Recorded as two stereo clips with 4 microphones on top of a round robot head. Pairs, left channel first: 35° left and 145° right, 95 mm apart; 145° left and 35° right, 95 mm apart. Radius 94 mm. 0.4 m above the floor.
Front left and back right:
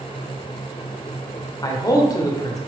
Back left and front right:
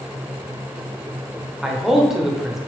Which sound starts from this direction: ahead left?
A man speaking, at 1.6 s.